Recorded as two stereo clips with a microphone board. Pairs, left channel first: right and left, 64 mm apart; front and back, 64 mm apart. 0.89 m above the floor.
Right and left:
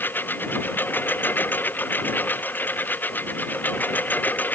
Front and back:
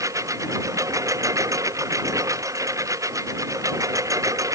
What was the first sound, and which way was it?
A lawn mower, 150° right.